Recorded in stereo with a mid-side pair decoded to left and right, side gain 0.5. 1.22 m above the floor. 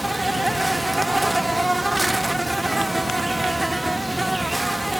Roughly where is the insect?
Ahead.